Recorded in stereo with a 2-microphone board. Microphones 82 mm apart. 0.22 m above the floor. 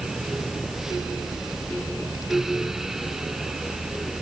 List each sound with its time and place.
Only background noise.